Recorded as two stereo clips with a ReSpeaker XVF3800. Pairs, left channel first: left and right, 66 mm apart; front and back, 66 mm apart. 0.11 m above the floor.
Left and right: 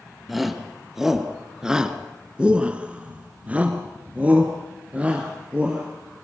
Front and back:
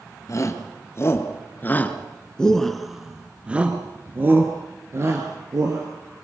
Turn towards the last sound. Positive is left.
turn(degrees=-155)